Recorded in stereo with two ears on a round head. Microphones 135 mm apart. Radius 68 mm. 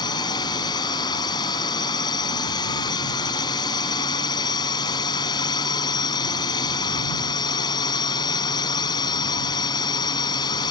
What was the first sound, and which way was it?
A drone, 30° left (ahead or behind).